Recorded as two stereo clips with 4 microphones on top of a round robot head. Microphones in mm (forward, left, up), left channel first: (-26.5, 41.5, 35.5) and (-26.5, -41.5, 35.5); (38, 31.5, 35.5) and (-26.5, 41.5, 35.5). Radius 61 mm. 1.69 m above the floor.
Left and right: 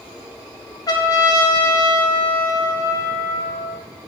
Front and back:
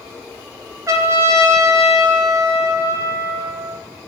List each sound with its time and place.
0.9 s a trumpet: 130° left, 1.6 m